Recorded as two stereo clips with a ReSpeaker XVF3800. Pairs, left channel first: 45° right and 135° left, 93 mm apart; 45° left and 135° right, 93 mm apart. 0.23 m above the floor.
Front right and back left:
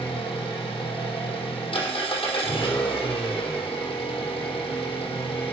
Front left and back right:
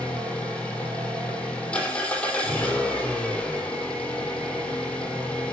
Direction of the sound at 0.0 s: 35° right.